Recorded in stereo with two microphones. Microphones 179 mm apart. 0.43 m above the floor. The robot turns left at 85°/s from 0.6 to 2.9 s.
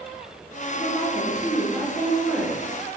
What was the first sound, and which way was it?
A woman speaking, 105° left.